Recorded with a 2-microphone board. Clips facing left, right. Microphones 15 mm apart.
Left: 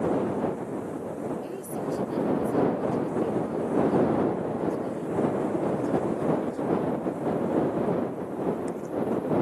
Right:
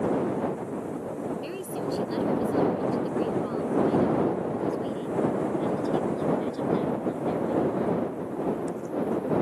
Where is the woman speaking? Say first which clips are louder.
Even; 75° right (ahead or behind); by 8.1 s 70° right (ahead or behind).